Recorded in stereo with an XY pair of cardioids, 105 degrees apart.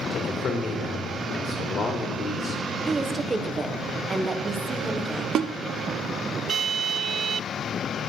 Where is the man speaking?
45° left, 2 m.